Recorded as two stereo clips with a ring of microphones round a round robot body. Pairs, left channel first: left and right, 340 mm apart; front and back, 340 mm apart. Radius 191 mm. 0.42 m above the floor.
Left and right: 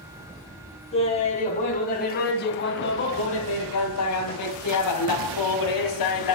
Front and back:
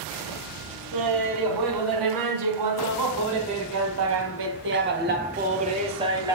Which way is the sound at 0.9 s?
165° left.